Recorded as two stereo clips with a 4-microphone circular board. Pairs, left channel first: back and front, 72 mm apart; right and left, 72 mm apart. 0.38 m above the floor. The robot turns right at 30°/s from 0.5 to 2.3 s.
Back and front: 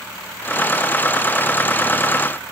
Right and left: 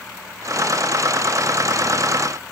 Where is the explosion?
No explosion in this recording.